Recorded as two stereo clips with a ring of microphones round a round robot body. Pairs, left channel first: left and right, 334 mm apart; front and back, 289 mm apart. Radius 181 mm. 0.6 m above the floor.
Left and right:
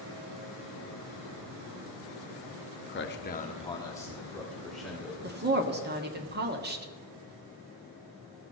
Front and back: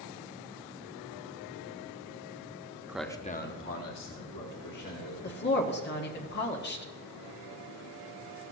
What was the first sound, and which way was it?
A man speaking, 105° left.